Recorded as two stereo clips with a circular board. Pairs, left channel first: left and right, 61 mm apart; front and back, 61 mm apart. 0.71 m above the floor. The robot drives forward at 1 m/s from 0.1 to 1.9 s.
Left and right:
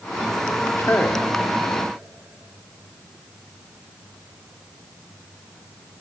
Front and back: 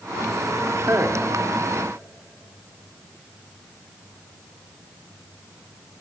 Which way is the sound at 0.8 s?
140° left.